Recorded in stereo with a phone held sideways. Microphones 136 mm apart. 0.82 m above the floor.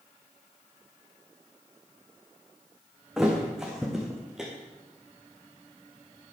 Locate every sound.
3.2 s a thud: 5° right (ahead or behind), 3.5 m